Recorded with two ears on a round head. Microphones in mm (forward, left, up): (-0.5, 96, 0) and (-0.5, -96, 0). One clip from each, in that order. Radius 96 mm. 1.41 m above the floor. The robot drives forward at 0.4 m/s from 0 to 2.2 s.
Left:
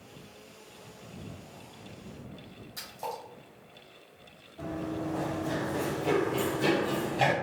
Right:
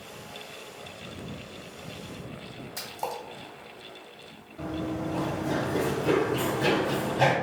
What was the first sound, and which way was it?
A splash, 15° right (ahead or behind).